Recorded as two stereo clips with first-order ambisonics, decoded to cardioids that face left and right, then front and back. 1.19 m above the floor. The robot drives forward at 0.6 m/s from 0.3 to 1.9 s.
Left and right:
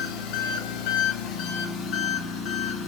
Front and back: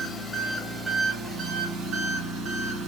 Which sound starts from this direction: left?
An engine running, at 0.0 s.